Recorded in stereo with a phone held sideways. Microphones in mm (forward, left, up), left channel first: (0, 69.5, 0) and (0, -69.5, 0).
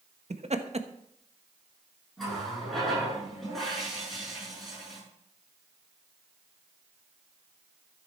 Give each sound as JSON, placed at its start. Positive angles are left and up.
{"t": 0.3, "sound": "laughter", "side_deg": -55, "distance_m": 1.3}
{"t": 2.2, "sound": "a running tap", "side_deg": 0, "distance_m": 9.5}